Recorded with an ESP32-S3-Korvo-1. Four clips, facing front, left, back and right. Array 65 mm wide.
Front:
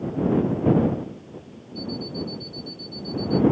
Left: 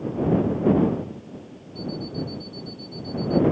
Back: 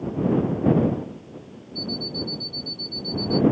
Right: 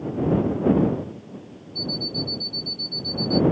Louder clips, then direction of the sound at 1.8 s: Even, even; 165° right.